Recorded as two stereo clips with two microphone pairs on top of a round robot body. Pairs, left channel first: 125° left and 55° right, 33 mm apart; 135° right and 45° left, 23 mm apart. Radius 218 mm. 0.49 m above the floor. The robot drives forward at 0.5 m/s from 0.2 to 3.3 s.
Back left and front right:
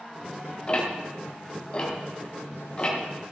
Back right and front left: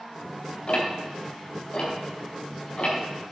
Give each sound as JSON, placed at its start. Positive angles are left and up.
{"t": 0.7, "sound": "ticking", "azimuth_deg": 180, "distance_m": 3.5}